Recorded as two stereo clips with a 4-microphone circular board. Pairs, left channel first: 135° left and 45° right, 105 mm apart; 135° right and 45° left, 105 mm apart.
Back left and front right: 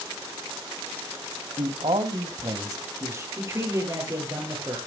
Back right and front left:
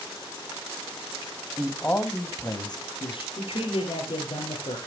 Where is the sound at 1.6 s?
50° right, 2 m; by 3.3 s 105° right, 3 m.